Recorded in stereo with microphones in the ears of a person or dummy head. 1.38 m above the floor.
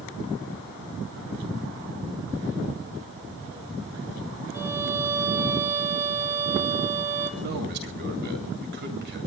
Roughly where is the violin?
Centre.